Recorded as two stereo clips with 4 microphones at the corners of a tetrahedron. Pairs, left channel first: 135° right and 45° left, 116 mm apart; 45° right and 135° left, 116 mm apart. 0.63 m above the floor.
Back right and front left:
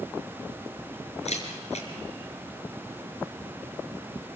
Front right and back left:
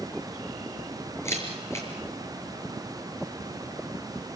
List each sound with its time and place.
1.2 s a camera shutter: 110° right, 5.5 m